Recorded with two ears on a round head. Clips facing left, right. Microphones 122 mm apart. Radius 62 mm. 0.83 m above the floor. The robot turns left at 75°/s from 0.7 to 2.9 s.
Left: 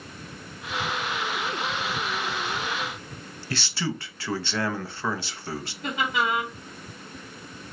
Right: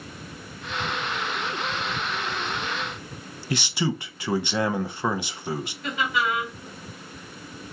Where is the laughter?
35° left (ahead or behind), 2.5 m.